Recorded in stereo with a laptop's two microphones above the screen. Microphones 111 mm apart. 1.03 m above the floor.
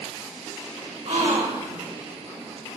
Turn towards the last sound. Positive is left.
turn(degrees=-70)  # may be behind; listen again after turning